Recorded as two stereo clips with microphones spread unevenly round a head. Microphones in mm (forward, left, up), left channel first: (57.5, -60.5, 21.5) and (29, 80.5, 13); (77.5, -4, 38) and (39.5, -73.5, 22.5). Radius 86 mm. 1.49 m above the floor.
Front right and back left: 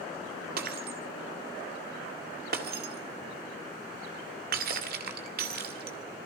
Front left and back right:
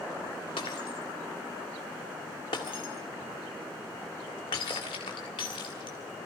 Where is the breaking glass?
95° left, 1.9 m.